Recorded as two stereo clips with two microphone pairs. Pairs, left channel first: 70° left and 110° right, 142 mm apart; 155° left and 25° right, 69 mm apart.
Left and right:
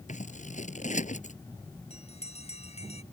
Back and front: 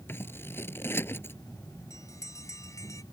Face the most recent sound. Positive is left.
turn(degrees=115)